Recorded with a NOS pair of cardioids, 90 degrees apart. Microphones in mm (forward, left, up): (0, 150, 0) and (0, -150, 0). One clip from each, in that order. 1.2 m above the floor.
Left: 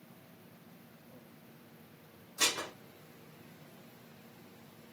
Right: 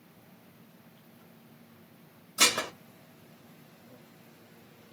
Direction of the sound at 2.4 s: 40° right.